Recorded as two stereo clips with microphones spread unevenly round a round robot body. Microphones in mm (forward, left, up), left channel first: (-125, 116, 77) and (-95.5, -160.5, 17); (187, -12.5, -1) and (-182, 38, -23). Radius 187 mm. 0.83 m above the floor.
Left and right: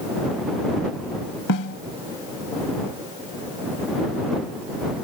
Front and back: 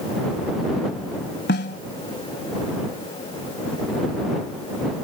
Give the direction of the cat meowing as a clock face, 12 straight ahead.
I don't hear a cat meowing.